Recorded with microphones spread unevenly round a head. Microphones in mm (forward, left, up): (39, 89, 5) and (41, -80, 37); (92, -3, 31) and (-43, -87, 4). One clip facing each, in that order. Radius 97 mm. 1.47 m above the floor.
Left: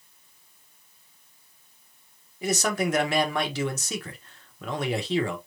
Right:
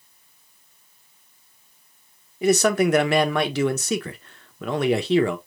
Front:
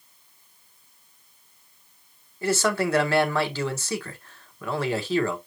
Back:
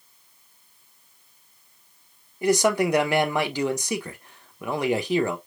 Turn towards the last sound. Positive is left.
turn(degrees=-70)